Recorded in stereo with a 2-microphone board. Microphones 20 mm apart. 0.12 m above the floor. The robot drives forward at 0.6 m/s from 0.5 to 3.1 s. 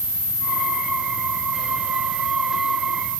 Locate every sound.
Only background noise.